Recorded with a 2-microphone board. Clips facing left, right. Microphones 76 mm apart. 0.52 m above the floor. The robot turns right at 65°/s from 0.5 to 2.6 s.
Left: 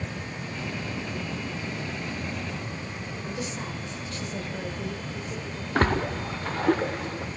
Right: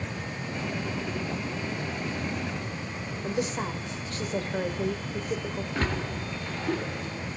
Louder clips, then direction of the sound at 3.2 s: Right 6 dB; 45° right (ahead or behind).